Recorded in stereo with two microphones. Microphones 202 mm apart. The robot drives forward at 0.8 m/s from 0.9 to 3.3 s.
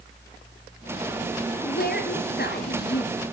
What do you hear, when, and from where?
1.6 s a woman speaking: 50° left (ahead or behind), 3 m; by 3.3 s 55° left (ahead or behind), 3 m